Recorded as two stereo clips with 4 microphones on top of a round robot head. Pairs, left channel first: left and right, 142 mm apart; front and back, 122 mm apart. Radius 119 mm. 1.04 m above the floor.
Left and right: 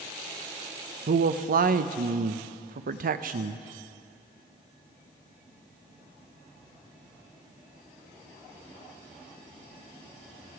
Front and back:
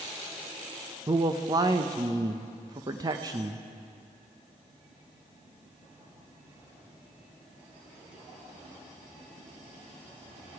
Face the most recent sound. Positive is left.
turn(degrees=-115)